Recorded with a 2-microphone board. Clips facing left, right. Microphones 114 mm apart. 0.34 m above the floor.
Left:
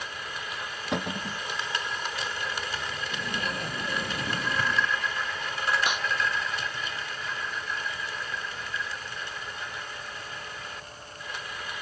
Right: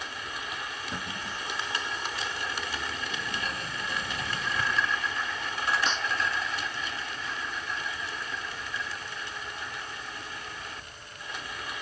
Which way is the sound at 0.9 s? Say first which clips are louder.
Left 6 dB; 75° left (ahead or behind).